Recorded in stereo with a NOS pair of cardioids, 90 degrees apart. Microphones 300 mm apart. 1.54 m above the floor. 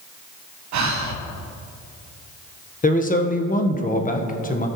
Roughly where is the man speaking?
Ahead left.